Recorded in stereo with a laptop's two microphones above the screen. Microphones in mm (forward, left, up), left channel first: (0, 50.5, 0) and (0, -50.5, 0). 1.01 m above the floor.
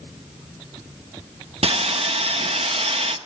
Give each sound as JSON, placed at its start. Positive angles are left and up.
{"t": 1.6, "sound": "sawing", "side_deg": -75, "distance_m": 0.8}